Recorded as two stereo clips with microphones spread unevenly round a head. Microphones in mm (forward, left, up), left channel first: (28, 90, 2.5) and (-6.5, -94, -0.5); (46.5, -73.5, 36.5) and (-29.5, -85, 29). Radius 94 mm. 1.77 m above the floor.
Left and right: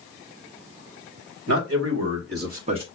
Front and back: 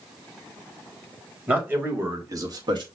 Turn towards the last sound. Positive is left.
turn(degrees=-165)